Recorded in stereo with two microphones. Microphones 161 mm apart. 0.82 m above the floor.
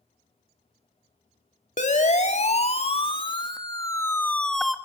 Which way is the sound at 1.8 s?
50° left (ahead or behind).